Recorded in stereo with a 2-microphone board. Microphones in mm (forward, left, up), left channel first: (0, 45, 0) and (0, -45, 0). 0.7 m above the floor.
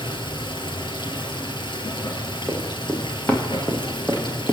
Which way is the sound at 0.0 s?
60° left (ahead or behind).